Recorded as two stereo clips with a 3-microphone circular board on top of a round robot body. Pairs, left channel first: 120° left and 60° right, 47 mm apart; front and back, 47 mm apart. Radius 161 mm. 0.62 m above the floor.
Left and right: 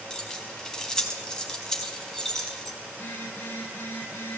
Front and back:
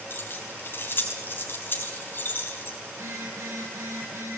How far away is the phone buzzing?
About 7.5 m.